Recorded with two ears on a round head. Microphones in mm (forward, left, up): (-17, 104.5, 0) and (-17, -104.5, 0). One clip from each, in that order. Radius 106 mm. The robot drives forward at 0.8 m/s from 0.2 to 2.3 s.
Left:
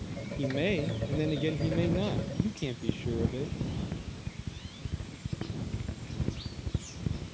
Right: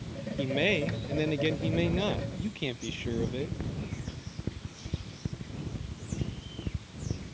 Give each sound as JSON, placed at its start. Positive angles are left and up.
{"t": 0.4, "sound": "a man speaking", "side_deg": -50}